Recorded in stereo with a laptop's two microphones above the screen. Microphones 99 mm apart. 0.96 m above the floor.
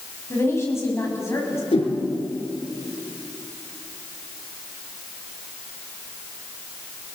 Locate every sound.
0.3 s a woman speaking: 30° left (ahead or behind), 7.5 m
1.7 s a whoosh: 80° left, 5 m